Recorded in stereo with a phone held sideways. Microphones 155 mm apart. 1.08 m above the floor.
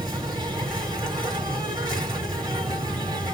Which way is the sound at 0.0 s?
30° right (ahead or behind).